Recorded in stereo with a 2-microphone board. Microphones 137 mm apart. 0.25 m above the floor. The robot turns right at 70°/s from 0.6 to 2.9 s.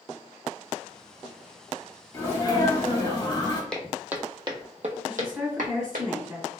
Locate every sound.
2.1 s a sneeze: 30° left, 1.1 m; by 3.6 s 85° left, 1.1 m
3.7 s footsteps: 5° left (ahead or behind), 0.6 m; by 6.1 s 75° right (ahead or behind), 1.1 m
5.1 s a woman speaking: 5° right (ahead or behind), 1.4 m